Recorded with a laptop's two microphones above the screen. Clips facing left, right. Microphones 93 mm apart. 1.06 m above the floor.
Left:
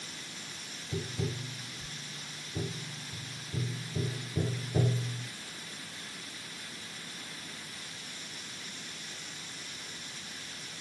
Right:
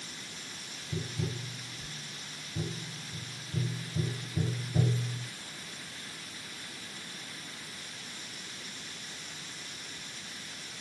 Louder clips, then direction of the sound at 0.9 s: Left 1 dB; 45° left (ahead or behind).